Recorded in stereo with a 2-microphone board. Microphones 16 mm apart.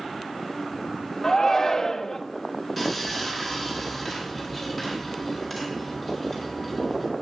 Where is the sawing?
5° right (ahead or behind), 3 m.